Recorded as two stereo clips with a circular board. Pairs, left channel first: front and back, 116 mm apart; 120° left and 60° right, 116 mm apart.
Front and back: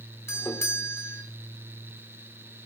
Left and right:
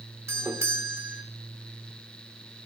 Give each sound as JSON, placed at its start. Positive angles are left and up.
{"t": 0.3, "sound": "a doorbell", "azimuth_deg": -30, "distance_m": 1.2}